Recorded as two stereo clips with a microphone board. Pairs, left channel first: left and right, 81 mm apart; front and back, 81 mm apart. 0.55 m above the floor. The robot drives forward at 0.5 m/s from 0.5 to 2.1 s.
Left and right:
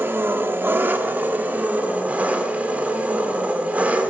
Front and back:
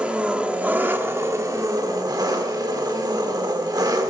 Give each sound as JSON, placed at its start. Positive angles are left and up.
{"t": 0.0, "sound": "an engine running", "azimuth_deg": -115, "distance_m": 0.9}